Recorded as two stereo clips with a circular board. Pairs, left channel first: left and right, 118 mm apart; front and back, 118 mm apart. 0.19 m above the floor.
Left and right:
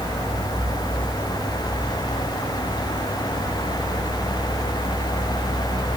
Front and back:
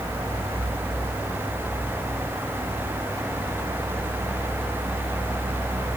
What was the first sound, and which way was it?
Only background noise.